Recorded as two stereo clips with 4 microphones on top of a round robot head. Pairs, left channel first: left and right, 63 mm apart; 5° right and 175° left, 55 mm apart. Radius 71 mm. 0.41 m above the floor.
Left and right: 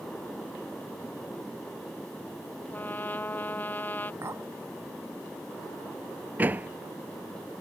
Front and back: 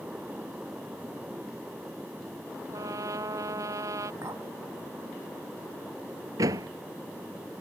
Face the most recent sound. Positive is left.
turn(degrees=-155)